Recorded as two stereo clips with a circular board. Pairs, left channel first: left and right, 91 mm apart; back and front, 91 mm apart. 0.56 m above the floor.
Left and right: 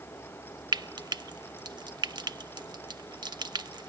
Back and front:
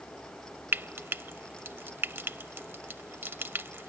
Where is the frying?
60° right.